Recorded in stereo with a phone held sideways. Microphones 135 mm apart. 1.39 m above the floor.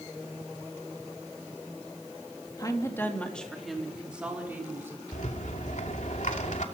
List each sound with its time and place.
2.6 s a woman speaking: 30° left (ahead or behind), 2.5 m; by 5.0 s 15° right (ahead or behind), 5 m
5.1 s a rattle: 65° left (ahead or behind), 2.5 m